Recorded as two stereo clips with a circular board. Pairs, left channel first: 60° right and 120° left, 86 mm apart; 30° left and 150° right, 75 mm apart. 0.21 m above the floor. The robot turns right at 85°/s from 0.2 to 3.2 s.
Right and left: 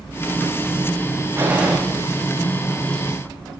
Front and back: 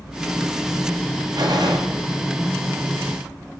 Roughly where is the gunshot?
Behind.